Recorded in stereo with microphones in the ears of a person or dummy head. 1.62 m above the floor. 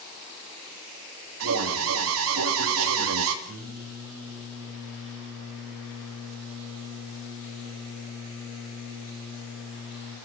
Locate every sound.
1.4 s an alarm: 75° right (ahead or behind), 2.5 m
3.5 s singing: 75° right (ahead or behind), 8.5 m